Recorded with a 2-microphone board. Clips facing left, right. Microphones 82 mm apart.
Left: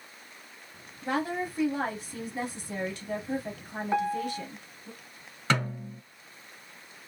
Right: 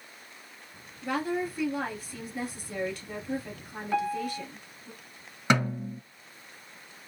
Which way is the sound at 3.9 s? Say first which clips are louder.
Even; 25° left (ahead or behind).